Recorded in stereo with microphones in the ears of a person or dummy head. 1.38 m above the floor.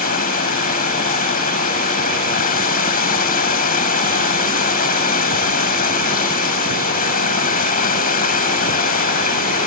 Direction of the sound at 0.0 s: 45° left (ahead or behind).